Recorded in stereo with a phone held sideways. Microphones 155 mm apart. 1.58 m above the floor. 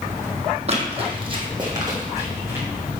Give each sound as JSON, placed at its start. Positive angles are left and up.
{"t": 0.7, "sound": "running footsteps", "side_deg": -45, "distance_m": 2.5}